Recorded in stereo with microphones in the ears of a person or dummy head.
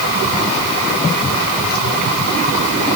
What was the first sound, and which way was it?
Only background noise.